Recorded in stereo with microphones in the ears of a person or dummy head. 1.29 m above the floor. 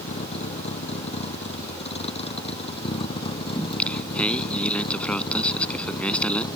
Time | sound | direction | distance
0.0 | a vehicle | 40° left (ahead or behind) | ?
3.5 | singing | 10° left (ahead or behind) | ?